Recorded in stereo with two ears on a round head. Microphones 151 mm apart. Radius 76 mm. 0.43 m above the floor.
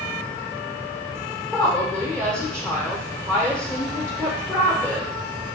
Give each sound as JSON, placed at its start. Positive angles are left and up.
{"t": 1.5, "sound": "a woman speaking", "side_deg": 5, "distance_m": 1.1}